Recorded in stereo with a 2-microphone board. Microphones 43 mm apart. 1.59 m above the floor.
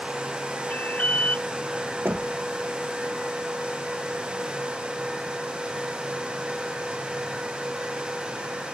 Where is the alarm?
40° left (ahead or behind).